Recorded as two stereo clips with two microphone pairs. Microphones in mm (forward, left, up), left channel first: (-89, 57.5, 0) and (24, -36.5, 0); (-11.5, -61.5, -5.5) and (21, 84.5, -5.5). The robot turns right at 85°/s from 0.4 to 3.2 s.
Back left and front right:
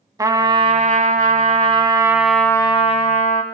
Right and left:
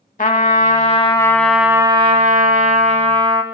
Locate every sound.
0.2 s a trumpet: 105° right, 0.6 m; by 3.4 s 130° left, 0.6 m